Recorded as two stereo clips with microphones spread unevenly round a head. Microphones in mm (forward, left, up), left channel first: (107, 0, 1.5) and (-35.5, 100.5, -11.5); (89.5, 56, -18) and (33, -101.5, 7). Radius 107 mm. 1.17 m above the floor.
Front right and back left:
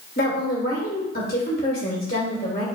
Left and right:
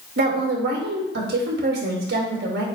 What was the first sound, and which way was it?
A woman speaking, 90° right.